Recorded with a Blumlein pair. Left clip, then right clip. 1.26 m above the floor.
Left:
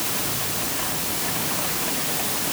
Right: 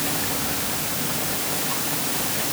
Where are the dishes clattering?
I don't hear dishes clattering.